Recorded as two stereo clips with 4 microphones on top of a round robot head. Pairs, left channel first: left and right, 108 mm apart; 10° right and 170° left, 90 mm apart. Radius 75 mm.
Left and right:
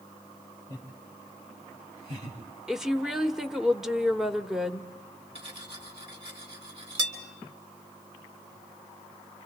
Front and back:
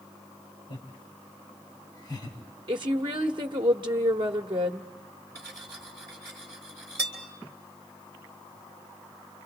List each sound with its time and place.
0.7 s laughter: 35° right, 3 m; by 2.4 s 60° right, 4 m
2.7 s a woman speaking: 175° right, 1.2 m
5.3 s cutlery clinking: 120° right, 3.5 m